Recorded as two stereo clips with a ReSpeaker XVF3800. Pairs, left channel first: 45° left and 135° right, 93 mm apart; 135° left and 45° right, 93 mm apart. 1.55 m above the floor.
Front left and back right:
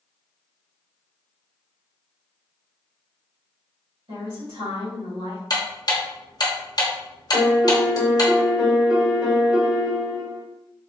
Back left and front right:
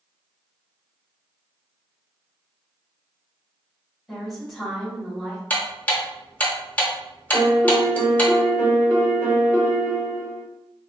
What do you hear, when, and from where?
4.1 s a woman speaking: 135° right, 1.8 m
5.5 s ticking: 70° left, 0.7 m
7.3 s a piano: 85° right, 1.1 m